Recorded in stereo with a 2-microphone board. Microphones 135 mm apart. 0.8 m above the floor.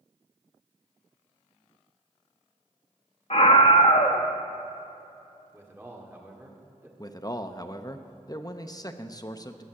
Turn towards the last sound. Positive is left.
turn(degrees=30)  # may be behind; listen again after turning